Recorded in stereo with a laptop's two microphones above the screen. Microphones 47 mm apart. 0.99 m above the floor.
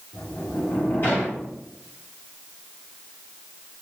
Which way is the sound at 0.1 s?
40° left (ahead or behind).